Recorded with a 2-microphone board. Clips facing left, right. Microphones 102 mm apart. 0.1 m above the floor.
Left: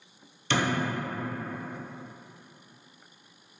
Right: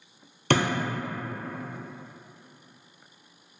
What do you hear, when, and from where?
0.5 s a thud: 60° right (ahead or behind), 0.8 m